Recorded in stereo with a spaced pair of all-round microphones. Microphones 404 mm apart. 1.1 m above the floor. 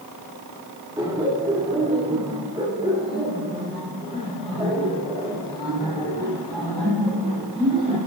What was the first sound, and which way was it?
Laughter, 10° right (ahead or behind).